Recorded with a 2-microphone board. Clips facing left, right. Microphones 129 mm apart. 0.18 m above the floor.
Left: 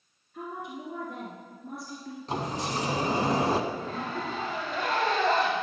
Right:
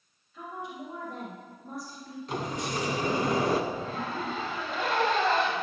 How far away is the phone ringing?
No phone ringing in this recording.